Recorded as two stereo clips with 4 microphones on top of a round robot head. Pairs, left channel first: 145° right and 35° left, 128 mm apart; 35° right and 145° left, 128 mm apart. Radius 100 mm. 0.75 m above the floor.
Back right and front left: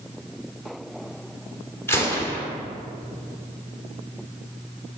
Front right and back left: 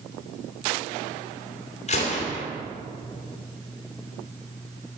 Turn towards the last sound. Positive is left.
turn(degrees=-70)